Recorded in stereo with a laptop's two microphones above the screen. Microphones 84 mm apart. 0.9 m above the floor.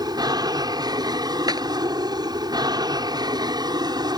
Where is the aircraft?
55° right (ahead or behind); by 4.2 s 60° right (ahead or behind).